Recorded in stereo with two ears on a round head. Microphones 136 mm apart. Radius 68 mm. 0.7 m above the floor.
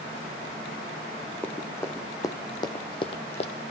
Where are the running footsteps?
10° left (ahead or behind), 1.6 m; by 3.7 s 45° left (ahead or behind), 1.0 m.